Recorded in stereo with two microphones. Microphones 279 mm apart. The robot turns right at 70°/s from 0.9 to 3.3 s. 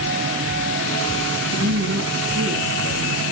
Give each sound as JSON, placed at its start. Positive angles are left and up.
{"t": 1.5, "sound": "a woman speaking", "azimuth_deg": -120, "distance_m": 3.5}